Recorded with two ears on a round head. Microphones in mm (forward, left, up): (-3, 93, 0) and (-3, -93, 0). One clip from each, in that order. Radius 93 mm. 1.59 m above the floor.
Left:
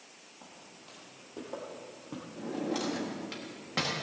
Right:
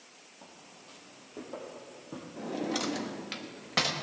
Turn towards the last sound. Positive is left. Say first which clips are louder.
# right 1 dB
turn(degrees=-25)  # may be behind; listen again after turning